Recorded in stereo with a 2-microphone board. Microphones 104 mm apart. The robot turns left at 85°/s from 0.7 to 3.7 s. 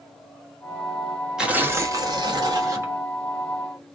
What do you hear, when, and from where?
1.4 s tearing paper: 10° right, 0.8 m; by 2.9 s 140° right, 0.8 m